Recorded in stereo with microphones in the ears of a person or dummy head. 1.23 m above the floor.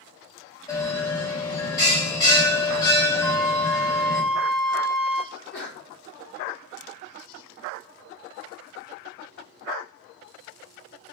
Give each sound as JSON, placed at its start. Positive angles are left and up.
{"t": 0.7, "sound": "a bell", "side_deg": 25, "distance_m": 2.5}
{"t": 3.2, "sound": "a flute", "side_deg": 5, "distance_m": 0.8}
{"t": 5.3, "sound": "a sneeze", "side_deg": 50, "distance_m": 1.0}